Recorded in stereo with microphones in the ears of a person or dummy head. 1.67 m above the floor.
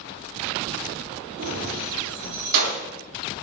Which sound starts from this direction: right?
Keys jangling, at 1.4 s.